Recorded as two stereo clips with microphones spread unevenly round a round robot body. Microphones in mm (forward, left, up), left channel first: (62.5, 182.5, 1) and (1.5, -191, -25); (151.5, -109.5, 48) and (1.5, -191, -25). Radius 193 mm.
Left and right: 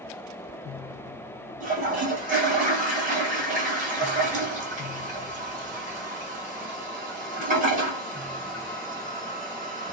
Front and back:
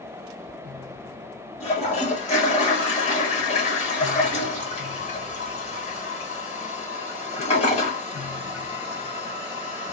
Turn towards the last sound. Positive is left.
turn(degrees=-35)